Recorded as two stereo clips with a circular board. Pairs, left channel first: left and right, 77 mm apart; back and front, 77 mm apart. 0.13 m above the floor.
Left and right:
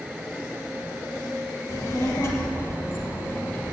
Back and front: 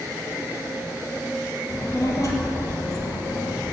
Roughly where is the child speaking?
Behind left.